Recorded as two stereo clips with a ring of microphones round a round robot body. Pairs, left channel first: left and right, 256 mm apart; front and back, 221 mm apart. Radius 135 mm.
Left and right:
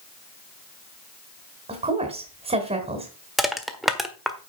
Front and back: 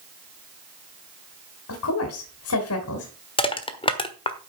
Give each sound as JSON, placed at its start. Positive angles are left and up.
{"t": 1.7, "sound": "a woman speaking", "azimuth_deg": -25, "distance_m": 2.0}
{"t": 3.4, "sound": "crushing", "azimuth_deg": 0, "distance_m": 1.4}